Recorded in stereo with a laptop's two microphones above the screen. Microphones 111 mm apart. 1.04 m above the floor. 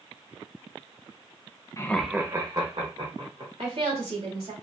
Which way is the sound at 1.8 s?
30° left (ahead or behind).